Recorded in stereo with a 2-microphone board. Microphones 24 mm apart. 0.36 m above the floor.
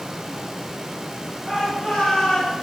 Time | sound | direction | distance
1.4 | a shout | 10° right (ahead or behind) | 6 m